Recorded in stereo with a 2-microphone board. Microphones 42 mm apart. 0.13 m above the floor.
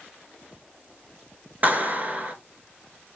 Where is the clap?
40° right (ahead or behind), 1.7 m.